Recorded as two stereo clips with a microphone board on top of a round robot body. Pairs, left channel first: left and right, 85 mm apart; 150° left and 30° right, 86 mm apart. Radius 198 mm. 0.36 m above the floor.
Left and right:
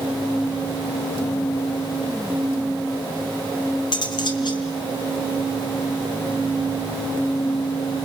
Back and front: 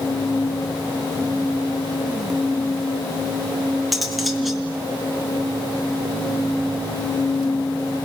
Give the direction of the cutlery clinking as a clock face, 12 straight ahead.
10 o'clock.